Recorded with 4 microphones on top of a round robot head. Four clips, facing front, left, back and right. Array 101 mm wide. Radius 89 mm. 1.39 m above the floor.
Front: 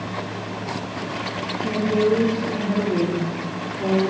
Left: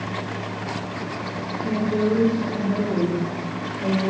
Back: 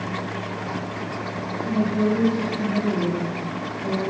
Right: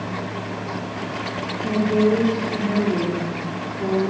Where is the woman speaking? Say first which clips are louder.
Right 4 dB, front 2 dB; 40° right, 5 m.